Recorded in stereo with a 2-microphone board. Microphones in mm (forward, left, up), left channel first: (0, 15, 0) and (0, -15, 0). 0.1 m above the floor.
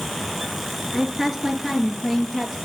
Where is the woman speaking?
5° right (ahead or behind), 1.9 m; by 2.6 s 10° right (ahead or behind), 2.5 m.